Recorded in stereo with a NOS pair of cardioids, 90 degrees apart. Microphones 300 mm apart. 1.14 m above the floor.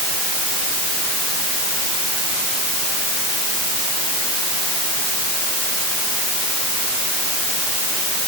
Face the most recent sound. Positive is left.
No sound to turn to.